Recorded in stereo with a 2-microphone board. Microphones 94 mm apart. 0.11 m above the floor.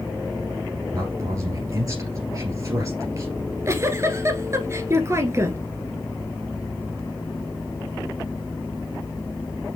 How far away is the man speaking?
About 2 m.